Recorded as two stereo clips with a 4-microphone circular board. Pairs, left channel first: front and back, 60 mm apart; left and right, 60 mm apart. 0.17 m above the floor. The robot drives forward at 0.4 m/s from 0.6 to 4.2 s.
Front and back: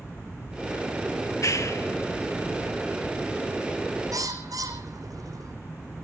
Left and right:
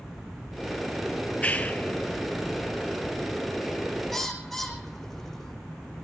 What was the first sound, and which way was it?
A clap, 25° left.